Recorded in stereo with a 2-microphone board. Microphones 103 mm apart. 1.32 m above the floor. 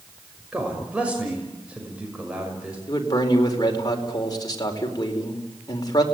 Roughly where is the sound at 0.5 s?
Centre.